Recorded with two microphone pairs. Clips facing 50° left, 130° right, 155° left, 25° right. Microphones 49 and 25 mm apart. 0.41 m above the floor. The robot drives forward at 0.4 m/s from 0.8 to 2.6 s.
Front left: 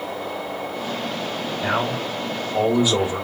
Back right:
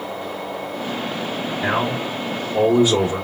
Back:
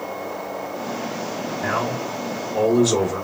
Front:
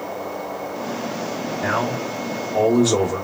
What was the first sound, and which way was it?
A man speaking, 65° right.